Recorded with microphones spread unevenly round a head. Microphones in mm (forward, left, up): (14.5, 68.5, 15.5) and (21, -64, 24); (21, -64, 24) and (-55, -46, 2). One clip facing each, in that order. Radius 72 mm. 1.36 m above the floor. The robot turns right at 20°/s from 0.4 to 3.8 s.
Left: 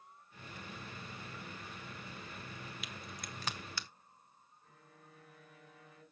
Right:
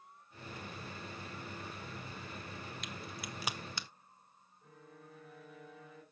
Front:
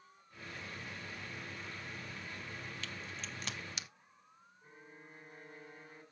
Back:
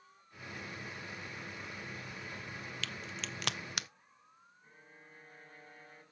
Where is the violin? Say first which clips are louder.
Right 7 dB, front 4 dB; 90° right, 6.5 m.